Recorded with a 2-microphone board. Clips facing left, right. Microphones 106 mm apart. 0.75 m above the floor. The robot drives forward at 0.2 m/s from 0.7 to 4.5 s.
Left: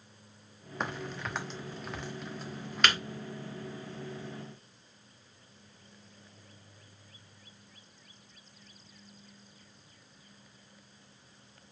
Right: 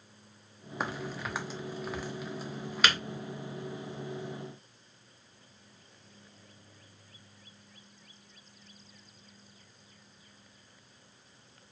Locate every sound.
0.8 s a crack: 5° right (ahead or behind), 1.0 m